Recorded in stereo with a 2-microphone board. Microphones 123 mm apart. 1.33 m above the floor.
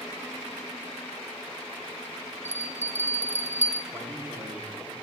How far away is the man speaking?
About 3 m.